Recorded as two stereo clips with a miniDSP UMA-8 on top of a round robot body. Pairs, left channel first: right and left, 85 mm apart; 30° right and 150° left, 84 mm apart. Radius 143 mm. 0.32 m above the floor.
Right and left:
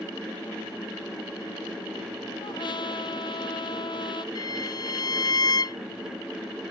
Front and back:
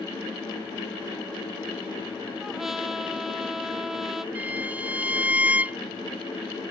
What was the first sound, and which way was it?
A trumpet, 125° right.